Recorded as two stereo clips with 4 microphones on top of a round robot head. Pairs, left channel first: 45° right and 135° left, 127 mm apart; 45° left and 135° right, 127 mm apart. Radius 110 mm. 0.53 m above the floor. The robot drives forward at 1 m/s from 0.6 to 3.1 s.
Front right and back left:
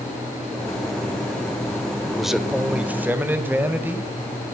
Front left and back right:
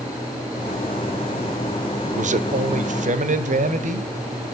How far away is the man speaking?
About 2 m.